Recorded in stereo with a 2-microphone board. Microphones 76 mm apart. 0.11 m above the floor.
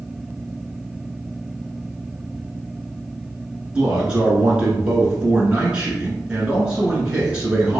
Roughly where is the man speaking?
Centre.